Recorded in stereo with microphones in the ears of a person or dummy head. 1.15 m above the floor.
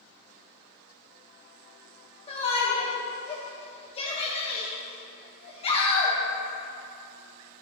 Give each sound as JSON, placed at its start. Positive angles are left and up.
{"t": 2.3, "sound": "a shout", "side_deg": 25, "distance_m": 1.0}